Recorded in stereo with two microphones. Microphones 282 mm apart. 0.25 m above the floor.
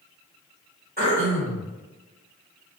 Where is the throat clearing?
35° right (ahead or behind), 1.4 m.